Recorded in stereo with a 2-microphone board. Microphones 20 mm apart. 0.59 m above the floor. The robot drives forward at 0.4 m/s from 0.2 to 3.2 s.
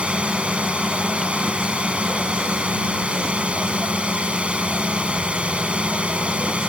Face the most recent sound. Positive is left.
turn(degrees=-75)  # may be behind; listen again after turning